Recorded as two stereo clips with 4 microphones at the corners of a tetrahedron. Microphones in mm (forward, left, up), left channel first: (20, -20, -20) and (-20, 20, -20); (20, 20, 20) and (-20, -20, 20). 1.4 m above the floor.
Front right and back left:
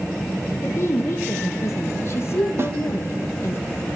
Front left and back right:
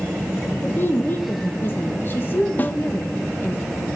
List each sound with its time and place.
0.6 s a woman speaking: 5° right, 1.5 m
2.6 s a snare drum: 100° left, 0.8 m